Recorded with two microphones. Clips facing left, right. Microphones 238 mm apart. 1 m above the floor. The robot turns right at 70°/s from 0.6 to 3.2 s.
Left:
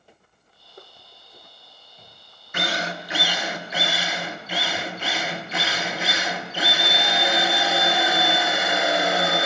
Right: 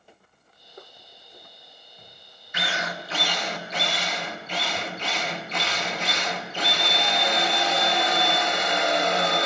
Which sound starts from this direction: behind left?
A drill, at 2.5 s.